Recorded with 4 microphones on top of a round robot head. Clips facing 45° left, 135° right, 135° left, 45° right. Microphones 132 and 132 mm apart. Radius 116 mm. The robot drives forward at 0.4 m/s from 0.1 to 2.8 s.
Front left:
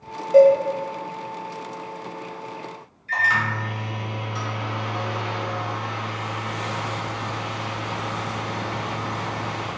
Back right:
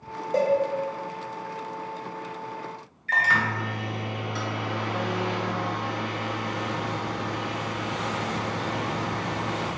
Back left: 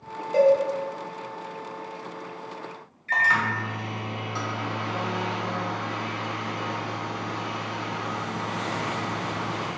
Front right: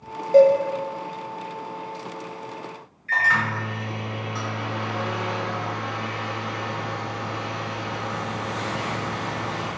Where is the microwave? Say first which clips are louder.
Front left 1 dB, front right 1 dB; 160° right, 0.7 m.